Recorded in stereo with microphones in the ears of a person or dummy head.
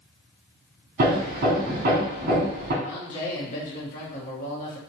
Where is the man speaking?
45° left (ahead or behind), 1.0 m.